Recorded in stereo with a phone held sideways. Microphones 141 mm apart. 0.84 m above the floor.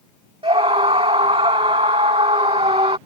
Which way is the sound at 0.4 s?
45° right (ahead or behind).